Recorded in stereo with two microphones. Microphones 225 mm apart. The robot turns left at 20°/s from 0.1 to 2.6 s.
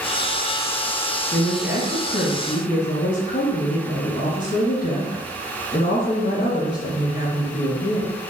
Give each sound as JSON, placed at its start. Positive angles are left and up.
{"t": 1.3, "sound": "a woman speaking", "side_deg": 45, "distance_m": 2.0}